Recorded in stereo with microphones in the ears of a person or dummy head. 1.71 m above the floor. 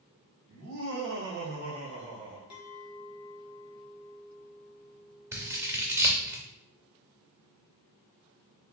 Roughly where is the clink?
Left.